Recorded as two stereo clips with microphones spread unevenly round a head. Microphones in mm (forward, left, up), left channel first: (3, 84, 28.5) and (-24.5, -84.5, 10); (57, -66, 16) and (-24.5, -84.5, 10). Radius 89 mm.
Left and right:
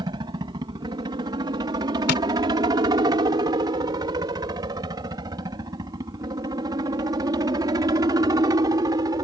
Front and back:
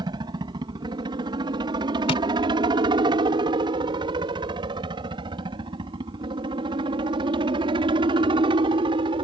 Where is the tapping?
50° left.